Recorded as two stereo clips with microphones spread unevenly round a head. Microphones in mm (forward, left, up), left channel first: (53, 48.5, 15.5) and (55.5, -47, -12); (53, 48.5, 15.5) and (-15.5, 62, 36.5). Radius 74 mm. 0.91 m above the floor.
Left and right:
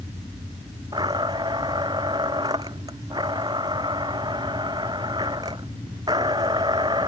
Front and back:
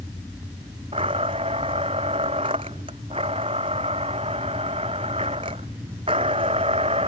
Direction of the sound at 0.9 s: 155° right.